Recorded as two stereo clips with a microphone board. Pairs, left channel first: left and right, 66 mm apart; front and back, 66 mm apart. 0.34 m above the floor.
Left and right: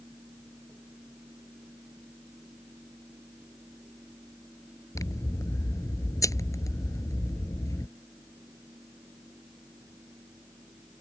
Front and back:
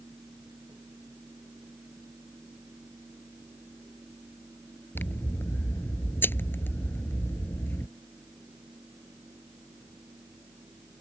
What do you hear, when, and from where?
5.0 s scissors: 60° left